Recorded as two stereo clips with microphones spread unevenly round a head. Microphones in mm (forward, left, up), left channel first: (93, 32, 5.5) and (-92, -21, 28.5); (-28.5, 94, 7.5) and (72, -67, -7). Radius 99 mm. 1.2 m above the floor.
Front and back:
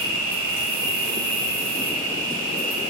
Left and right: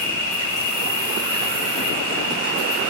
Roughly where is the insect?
Behind.